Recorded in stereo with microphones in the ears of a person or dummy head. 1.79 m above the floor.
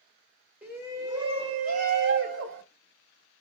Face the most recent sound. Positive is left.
turn(degrees=-65)  # may be behind; listen again after turning